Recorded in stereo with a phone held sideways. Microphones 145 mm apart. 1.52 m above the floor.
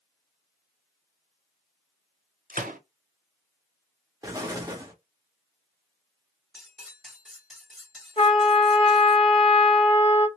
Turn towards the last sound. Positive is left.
turn(degrees=40)  # may be behind; listen again after turning